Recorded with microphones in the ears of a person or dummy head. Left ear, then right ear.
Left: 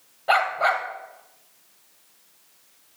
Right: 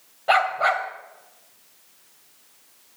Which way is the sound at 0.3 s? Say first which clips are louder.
Right 1 dB; 5° right (ahead or behind).